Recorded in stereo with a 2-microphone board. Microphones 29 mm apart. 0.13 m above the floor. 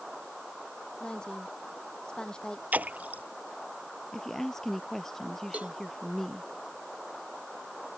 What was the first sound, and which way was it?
A woman speaking, 25° left (ahead or behind).